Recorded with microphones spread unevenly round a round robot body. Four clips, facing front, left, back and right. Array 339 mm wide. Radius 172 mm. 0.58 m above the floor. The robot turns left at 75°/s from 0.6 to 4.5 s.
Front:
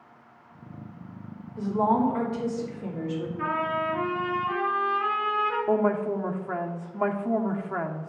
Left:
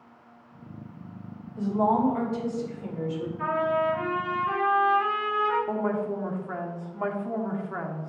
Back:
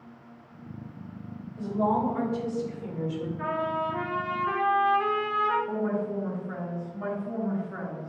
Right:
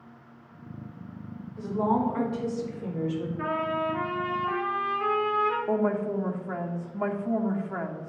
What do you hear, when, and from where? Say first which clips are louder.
1.6 s a woman speaking: left 3 dB, front 3 dB; 20° left, 3 m; by 3.3 s 110° right, 3 m
3.4 s a trumpet: left 5 dB, front 1 dB; 100° right, 2.5 m; by 5.6 s 175° left, 2.5 m
5.7 s a woman speaking: right 2 dB, front 5 dB; 10° left, 1.3 m